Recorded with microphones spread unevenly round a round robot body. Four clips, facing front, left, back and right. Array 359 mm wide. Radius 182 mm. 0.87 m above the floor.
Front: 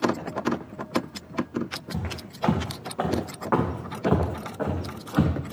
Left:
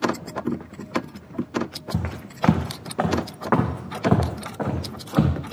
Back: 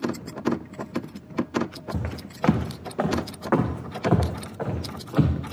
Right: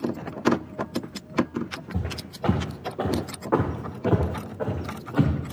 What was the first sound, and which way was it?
Footsteps, 130° left.